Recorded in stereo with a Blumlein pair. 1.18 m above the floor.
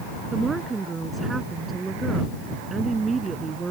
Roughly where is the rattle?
No rattle in this recording.